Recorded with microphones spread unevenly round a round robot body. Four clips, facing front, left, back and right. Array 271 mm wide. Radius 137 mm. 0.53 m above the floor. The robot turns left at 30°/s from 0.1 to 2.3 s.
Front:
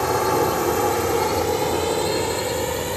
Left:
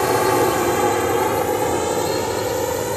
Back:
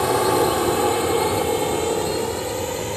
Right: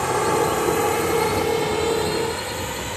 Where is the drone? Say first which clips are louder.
Left 3 dB, back 1 dB; 105° left; by 3.0 s 90° left.